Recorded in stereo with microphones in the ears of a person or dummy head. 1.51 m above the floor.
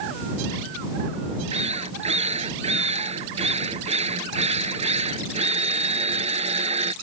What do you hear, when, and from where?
1.5 s a drill: 35° right (ahead or behind)